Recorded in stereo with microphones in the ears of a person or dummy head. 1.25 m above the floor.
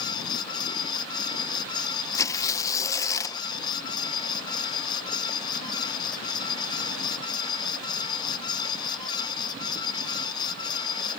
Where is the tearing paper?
15° left (ahead or behind).